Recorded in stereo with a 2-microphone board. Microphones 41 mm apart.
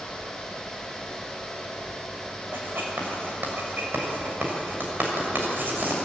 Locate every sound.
2.5 s writing: 55° right (ahead or behind), 6.5 m